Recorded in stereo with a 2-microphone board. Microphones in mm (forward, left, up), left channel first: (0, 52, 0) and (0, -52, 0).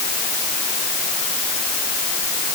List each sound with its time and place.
Only background noise.